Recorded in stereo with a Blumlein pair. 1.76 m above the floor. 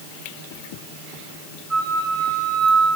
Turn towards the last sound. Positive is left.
turn(degrees=-10)